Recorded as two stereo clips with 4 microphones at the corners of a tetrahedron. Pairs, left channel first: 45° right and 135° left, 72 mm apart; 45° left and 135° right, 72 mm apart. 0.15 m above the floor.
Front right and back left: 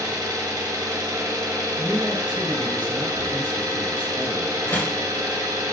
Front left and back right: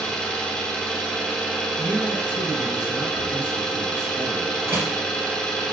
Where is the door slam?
90° right, 0.8 m.